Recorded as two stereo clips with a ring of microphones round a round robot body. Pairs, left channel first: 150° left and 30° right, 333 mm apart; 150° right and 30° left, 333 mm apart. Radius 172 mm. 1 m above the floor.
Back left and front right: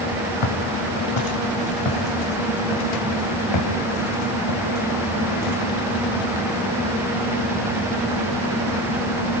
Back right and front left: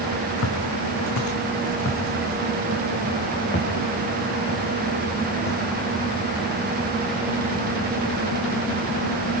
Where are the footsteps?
165° left, 2.5 m; by 9.4 s 140° left, 8 m.